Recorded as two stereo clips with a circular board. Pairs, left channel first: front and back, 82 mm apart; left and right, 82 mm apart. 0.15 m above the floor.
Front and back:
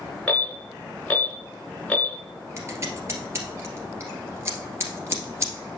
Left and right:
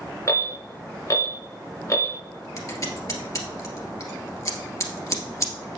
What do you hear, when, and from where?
0.3 s an alarm: 70° left, 2.5 m
2.6 s scissors: 130° left, 1.9 m